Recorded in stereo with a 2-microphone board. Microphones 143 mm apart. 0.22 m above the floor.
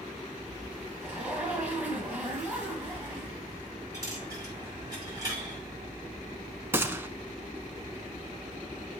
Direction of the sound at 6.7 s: 15° right (ahead or behind).